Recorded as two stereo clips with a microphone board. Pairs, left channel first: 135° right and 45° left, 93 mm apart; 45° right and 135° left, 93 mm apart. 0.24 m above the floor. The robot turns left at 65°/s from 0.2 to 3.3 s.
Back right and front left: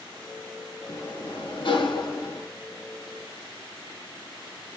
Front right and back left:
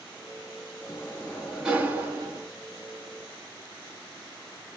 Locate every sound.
0.9 s a sliding door: 95° right, 1.3 m; by 2.5 s 165° left, 1.3 m